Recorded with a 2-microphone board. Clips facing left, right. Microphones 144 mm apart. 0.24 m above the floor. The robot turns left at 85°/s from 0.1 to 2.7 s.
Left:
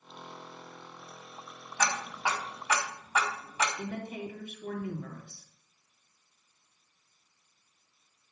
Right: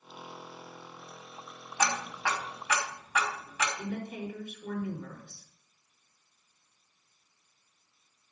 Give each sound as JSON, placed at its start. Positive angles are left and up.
{"t": 1.8, "sound": "ticking", "side_deg": -10, "distance_m": 2.0}
{"t": 3.8, "sound": "a woman speaking", "side_deg": 65, "distance_m": 3.0}